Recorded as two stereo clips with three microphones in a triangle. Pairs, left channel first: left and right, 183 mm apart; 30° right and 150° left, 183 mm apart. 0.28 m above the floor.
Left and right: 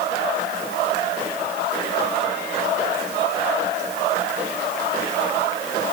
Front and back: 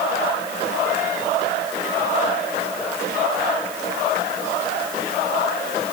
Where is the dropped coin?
No dropped coin in this recording.